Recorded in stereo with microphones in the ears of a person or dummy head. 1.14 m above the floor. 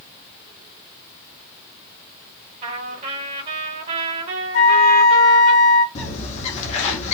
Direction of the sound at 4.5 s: 50° left (ahead or behind).